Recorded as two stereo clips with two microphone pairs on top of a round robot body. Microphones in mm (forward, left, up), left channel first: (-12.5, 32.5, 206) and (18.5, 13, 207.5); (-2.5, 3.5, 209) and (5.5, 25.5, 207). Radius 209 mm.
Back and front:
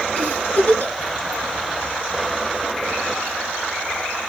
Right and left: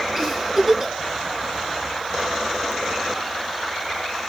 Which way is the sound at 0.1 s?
145° left.